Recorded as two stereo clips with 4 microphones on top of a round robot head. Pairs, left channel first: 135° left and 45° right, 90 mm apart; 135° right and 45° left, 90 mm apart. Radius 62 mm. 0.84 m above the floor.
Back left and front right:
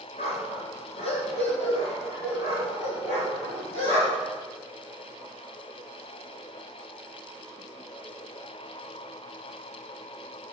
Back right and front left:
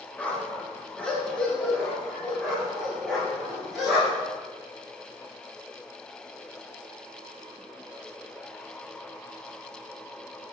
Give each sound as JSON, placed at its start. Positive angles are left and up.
{"t": 0.2, "sound": "a dog barking", "azimuth_deg": 150, "distance_m": 3.0}